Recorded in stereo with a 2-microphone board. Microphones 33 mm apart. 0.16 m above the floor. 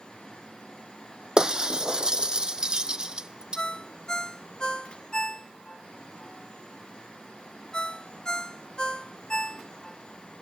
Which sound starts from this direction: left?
A ringtone, at 3.6 s.